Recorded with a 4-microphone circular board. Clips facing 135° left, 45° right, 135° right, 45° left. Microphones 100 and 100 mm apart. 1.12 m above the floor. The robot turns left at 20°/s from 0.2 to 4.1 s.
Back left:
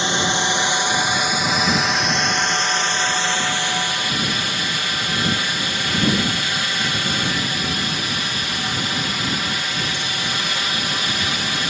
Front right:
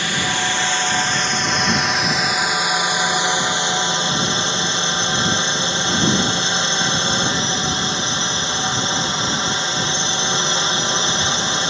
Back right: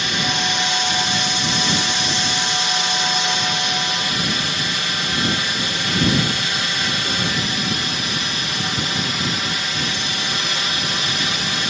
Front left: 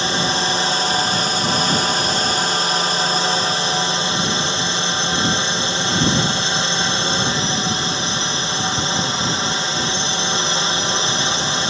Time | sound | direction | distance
0.0 | a drone | 80° left | ?